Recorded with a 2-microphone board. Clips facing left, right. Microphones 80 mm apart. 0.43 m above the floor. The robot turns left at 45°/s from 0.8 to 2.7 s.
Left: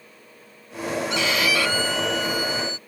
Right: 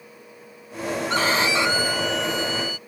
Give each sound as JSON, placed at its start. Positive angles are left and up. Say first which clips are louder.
{"t": 1.1, "sound": "a violin", "louder": "right 3 dB", "azimuth_deg": -135}